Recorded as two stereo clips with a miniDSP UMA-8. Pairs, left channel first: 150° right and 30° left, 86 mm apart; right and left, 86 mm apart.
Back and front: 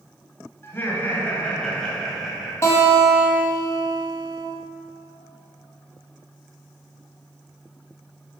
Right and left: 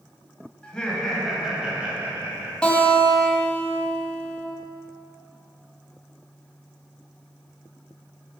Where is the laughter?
155° right, 1.4 m; by 2.5 s 115° left, 1.4 m.